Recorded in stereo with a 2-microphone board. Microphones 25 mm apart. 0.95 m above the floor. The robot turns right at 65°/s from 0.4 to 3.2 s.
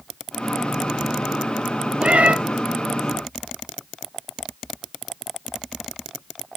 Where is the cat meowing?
50° right (ahead or behind), 0.8 m; by 2.4 s 65° right (ahead or behind), 0.8 m.